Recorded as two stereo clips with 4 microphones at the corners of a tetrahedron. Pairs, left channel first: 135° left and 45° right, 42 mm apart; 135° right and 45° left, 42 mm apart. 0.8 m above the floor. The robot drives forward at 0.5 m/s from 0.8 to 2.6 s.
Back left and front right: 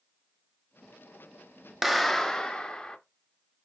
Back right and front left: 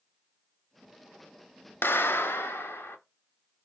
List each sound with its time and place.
1.8 s a clap: 130° right, 0.5 m; by 3.0 s 150° right, 0.8 m